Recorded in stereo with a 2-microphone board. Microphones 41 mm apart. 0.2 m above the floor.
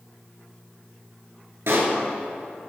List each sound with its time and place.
1.7 s a pop: 70° right (ahead or behind), 1.6 m